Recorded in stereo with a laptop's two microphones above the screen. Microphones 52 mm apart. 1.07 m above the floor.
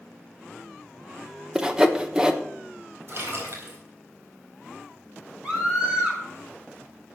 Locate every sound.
1.6 s sawing: 15° right (ahead or behind), 1.2 m
3.1 s a splash: 50° right (ahead or behind), 4 m
5.4 s a scream: 20° right (ahead or behind), 2.5 m